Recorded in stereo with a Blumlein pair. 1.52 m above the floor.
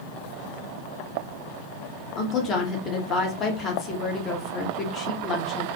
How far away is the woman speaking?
About 0.8 m.